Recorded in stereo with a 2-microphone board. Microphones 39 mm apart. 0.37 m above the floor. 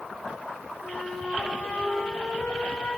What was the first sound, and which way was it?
A flute, 35° left (ahead or behind).